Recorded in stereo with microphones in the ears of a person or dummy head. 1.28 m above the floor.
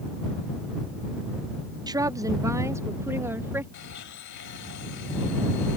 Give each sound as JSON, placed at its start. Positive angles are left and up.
{"t": 1.9, "sound": "a woman speaking", "side_deg": -20}
{"t": 3.7, "sound": "a blender", "side_deg": 65}